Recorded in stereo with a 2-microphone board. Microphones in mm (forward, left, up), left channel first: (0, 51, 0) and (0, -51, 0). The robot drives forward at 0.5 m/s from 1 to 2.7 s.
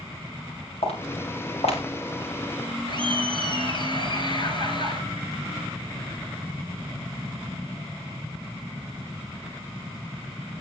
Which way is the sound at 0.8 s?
75° left (ahead or behind).